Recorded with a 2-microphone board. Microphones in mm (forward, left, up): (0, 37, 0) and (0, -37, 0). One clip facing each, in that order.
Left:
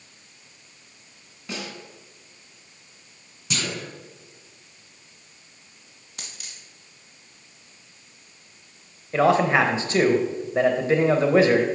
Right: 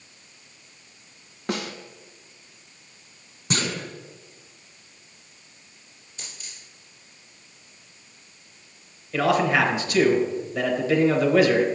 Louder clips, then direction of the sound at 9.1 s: Left 2 dB; 30° left (ahead or behind).